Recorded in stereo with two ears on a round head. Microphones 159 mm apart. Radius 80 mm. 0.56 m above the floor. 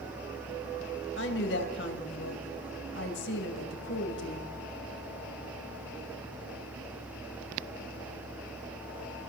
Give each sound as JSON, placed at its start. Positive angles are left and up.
{"t": 1.2, "sound": "a woman speaking", "side_deg": 70, "distance_m": 3.5}